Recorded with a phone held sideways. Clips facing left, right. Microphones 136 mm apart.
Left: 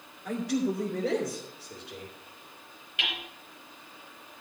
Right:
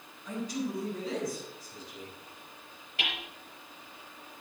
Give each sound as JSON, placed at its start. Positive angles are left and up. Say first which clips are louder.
{"t": 0.2, "sound": "a man speaking", "louder": "left 6 dB", "side_deg": 75, "distance_m": 2.5}
{"t": 3.0, "sound": "hammering", "louder": "even", "side_deg": -35, "distance_m": 4.0}